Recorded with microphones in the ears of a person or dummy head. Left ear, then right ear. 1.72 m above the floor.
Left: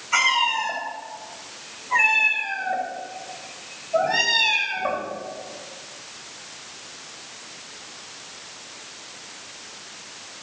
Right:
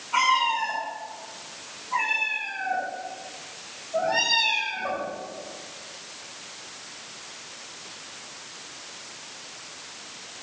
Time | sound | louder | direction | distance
0.1 | a cat meowing | left 2 dB | 70° left (ahead or behind) | 5.5 m